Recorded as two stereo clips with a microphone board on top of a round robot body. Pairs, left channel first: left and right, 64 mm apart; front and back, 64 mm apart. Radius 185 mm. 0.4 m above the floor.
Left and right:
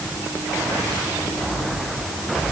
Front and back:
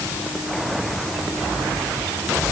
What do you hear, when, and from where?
Only background noise.